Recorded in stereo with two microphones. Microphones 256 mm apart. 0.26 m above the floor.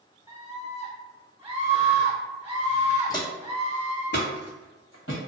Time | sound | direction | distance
0.3 | a scream | 10° right (ahead or behind) | 1.0 m
3.1 | footsteps | 15° left (ahead or behind) | 0.8 m